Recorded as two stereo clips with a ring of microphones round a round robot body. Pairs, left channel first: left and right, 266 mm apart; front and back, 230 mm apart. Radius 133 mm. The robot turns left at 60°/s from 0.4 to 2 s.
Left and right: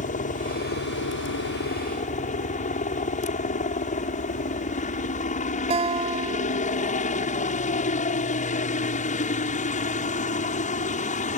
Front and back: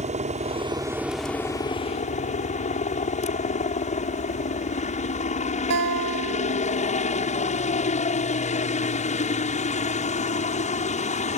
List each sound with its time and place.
0.0 s a helicopter: 135° left; by 11.4 s 40° left
5.7 s a guitar: 160° right